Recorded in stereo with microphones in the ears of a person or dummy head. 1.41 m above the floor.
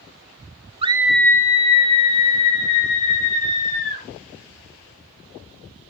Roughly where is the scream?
Right.